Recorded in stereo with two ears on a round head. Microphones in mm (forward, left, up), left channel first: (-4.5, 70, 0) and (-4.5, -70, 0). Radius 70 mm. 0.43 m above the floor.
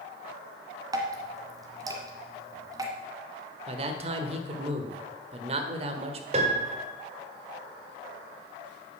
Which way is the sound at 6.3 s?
40° right (ahead or behind).